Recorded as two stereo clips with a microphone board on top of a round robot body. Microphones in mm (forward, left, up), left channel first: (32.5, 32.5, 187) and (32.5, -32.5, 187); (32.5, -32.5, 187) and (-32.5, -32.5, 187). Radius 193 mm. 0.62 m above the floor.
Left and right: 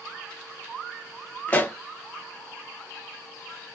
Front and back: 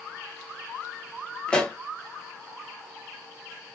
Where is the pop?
55° left, 1.1 m.